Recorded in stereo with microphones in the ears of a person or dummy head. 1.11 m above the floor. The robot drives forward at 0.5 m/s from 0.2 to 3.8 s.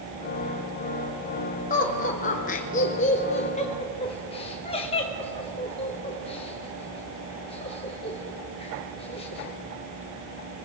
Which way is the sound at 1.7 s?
35° left (ahead or behind).